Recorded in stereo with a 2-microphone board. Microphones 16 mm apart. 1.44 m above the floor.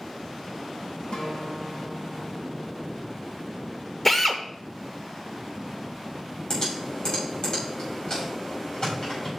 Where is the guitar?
75° left (ahead or behind), 1.7 m.